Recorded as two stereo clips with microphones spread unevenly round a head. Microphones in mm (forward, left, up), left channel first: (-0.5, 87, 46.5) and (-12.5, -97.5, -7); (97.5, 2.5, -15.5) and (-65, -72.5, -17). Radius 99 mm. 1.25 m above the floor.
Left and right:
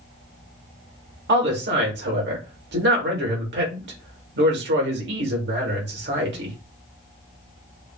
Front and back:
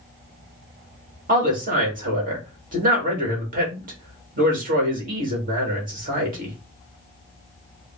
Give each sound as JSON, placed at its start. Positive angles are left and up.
{"t": 1.3, "sound": "a woman speaking", "azimuth_deg": -115, "distance_m": 1.7}